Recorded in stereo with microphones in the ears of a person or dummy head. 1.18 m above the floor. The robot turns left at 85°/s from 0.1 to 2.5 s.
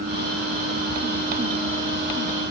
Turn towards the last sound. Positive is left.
No sound to turn to.